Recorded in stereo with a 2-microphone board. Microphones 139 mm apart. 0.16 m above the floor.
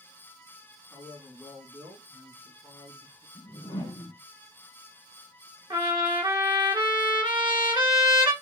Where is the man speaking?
15° right (ahead or behind), 1.7 m; by 3.2 s 20° left (ahead or behind), 1.5 m.